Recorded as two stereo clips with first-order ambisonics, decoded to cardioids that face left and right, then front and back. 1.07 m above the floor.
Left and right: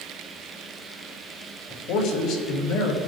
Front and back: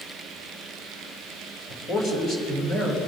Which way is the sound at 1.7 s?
65° left.